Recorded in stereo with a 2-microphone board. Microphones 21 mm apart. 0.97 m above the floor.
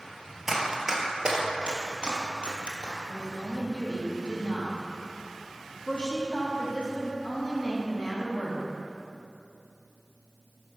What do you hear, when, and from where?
0.5 s running footsteps: 15° right (ahead or behind), 1.2 m; by 3.0 s 55° right (ahead or behind), 1.6 m
3.1 s a woman speaking: 55° left (ahead or behind), 1.4 m